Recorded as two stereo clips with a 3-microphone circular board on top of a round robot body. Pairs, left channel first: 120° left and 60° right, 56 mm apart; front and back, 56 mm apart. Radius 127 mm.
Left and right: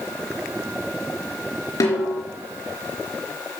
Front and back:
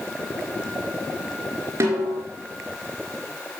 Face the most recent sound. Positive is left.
turn(degrees=135)